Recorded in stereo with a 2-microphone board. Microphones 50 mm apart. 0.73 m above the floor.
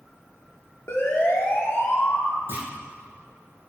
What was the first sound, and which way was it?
A siren, 60° left (ahead or behind).